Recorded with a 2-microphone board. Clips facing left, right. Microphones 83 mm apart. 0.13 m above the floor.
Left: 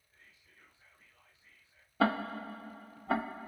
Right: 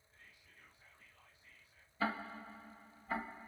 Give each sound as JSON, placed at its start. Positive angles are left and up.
{"t": 0.1, "sound": "whispering", "side_deg": 25, "distance_m": 4.5}
{"t": 2.0, "sound": "ticking", "side_deg": 70, "distance_m": 0.6}